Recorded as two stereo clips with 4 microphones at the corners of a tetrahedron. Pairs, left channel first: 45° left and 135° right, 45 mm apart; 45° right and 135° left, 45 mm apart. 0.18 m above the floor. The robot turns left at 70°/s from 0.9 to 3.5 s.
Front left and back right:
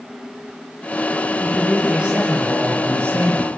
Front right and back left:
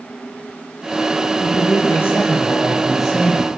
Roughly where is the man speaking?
Ahead right.